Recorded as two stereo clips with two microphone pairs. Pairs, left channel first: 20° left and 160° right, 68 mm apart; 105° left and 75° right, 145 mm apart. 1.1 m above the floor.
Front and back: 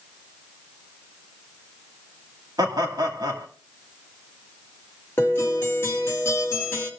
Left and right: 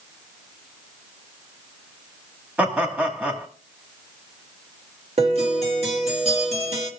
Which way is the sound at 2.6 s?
155° right.